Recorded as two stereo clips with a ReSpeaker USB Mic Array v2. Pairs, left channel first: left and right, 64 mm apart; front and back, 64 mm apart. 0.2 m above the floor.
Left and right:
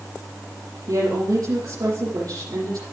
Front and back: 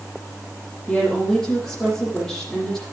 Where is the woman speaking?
80° right, 4.5 m.